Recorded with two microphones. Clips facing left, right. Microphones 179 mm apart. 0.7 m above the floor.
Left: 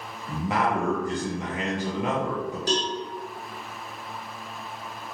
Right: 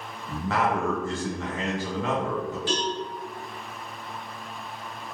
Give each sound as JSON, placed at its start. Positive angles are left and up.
{"t": 0.3, "sound": "a man speaking", "side_deg": 15, "distance_m": 0.6}
{"t": 2.7, "sound": "a cowbell", "side_deg": 40, "distance_m": 1.0}